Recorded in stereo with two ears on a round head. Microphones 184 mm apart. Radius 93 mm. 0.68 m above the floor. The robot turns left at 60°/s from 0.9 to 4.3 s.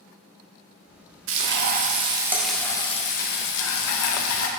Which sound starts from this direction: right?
Frying, at 1.3 s.